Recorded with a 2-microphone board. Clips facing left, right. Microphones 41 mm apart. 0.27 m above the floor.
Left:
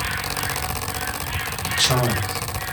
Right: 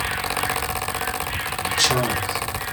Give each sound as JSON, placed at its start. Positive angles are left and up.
{"t": 1.6, "sound": "a man speaking", "side_deg": 35, "distance_m": 1.0}